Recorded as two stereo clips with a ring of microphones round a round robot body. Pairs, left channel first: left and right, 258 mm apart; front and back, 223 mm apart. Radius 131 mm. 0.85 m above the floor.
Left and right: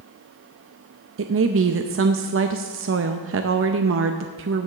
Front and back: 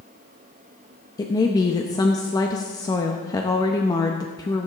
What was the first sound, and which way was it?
A woman speaking, 70° right.